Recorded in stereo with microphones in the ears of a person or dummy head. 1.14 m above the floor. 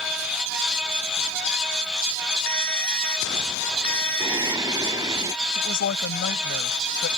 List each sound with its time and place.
2.5 s a ringtone: 10° left (ahead or behind)
4.2 s singing: 15° right (ahead or behind)
5.5 s a woman speaking: 60° left (ahead or behind)